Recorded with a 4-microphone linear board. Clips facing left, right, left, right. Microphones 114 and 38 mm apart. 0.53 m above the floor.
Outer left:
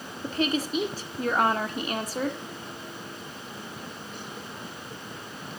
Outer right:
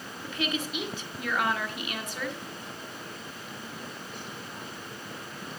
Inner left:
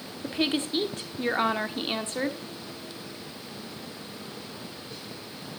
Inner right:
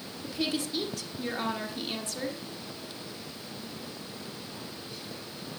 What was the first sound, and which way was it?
A woman speaking, 35° left (ahead or behind).